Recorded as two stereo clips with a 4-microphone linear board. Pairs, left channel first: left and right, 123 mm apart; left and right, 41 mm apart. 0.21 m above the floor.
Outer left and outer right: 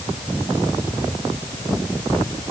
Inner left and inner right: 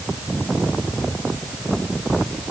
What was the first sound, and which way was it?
Only background noise.